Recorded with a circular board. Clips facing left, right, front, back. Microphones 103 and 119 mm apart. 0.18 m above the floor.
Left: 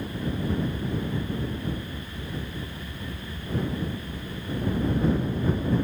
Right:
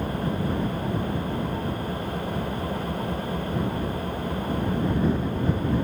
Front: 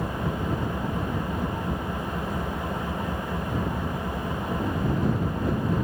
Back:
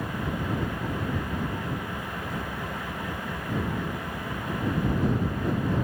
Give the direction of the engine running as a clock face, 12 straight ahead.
2 o'clock.